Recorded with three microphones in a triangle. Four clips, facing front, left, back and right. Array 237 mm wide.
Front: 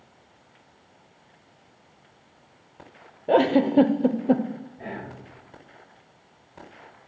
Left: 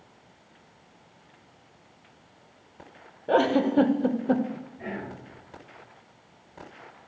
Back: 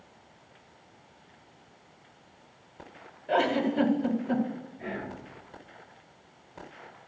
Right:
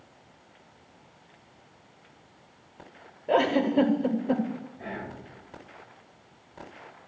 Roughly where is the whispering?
Ahead.